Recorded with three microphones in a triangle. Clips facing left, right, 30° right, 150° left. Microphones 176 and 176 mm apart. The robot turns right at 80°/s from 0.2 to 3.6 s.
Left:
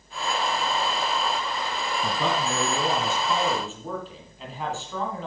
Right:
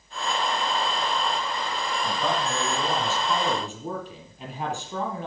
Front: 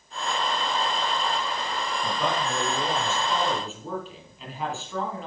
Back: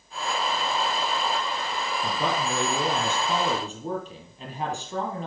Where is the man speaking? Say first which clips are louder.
Left 1 dB, even; 75° left, 3.5 m; by 5.3 s 160° right, 3.5 m.